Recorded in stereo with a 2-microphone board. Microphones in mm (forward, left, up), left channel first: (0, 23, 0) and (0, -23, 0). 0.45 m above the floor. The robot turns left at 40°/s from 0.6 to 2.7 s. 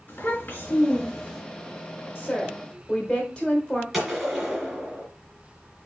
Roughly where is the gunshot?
Centre.